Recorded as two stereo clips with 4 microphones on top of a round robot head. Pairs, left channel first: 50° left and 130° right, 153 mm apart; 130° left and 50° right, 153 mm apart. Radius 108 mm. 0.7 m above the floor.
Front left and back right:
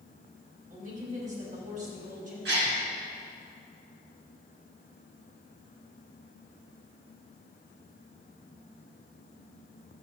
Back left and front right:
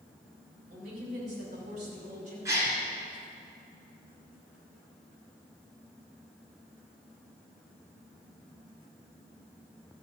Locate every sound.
0.7 s a woman speaking: 90° right, 5 m
2.5 s a gasp: 125° right, 2.5 m